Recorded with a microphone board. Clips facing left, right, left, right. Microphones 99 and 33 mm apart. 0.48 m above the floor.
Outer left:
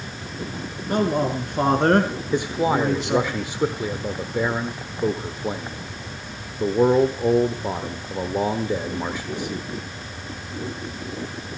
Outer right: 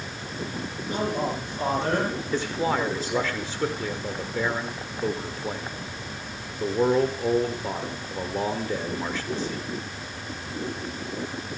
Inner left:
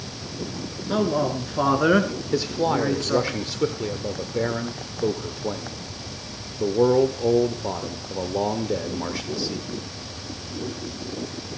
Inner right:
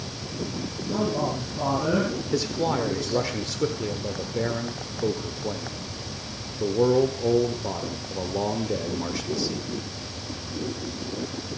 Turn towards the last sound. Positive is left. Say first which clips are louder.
# outer left 5 dB, inner left 4 dB
turn(degrees=15)  # may be behind; listen again after turning